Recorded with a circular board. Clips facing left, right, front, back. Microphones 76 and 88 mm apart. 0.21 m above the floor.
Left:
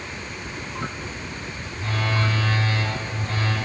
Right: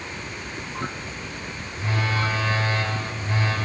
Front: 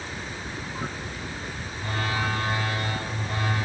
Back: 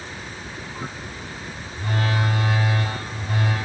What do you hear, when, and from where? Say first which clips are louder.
1.7 s a phone buzzing: even, back 4 dB; 160° right, 1.9 m